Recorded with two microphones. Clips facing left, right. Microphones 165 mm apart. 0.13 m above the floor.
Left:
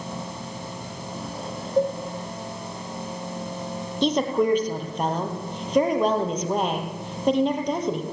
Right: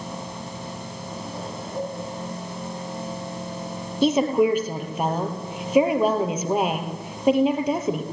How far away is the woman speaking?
About 4 m.